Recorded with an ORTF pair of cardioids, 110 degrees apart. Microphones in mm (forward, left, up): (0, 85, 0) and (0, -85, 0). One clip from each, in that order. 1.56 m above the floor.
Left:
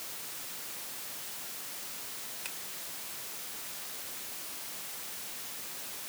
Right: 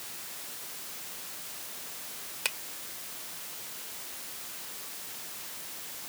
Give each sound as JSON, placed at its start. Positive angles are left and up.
{"t": 2.5, "sound": "a finger snap", "azimuth_deg": -65}